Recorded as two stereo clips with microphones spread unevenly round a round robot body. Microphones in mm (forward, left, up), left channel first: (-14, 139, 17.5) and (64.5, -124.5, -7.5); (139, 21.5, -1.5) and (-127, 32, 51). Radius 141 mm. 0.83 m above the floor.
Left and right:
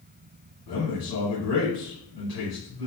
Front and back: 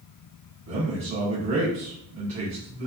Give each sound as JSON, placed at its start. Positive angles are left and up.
{"t": 0.7, "sound": "a man speaking", "azimuth_deg": 135, "distance_m": 1.6}